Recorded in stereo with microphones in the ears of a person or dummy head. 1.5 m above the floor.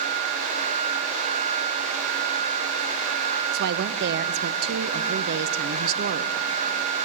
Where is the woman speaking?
60° right (ahead or behind), 0.7 m.